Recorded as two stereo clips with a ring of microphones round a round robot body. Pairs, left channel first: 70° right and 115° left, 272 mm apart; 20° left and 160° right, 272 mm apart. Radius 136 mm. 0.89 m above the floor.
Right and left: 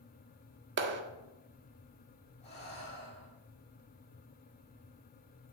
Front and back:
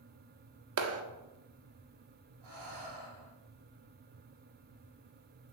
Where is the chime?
No chime in this recording.